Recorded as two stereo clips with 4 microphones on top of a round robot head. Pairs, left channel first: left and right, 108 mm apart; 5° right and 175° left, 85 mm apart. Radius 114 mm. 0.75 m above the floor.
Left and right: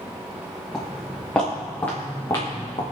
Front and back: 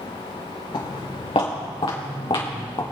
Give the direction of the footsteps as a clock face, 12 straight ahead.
12 o'clock.